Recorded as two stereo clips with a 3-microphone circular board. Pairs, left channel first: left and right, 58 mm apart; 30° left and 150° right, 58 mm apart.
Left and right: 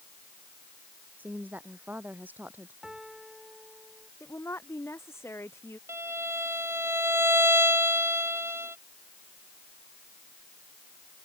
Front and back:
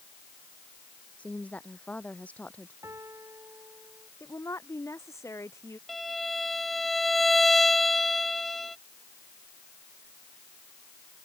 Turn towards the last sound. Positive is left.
turn(degrees=-60)